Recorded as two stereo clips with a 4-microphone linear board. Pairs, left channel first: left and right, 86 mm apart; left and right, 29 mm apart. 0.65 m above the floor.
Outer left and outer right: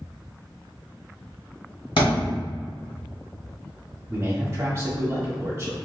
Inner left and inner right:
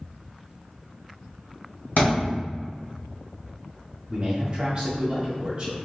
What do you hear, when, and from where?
2.0 s a thud: 75° left (ahead or behind), 1.6 m
4.1 s a man speaking: 30° right (ahead or behind), 1.2 m